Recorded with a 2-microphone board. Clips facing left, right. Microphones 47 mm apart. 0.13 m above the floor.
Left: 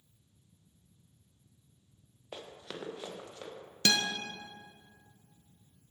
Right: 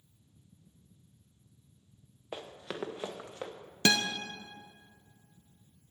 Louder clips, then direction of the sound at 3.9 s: Right 2 dB; 25° right (ahead or behind).